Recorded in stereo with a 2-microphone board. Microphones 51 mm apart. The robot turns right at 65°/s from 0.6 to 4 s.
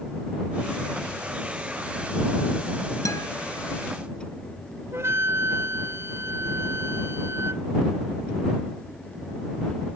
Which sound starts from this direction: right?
A flute, at 4.9 s.